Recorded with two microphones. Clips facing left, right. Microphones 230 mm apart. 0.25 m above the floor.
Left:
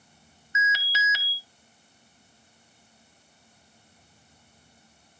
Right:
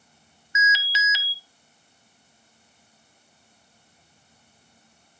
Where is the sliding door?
I don't hear a sliding door.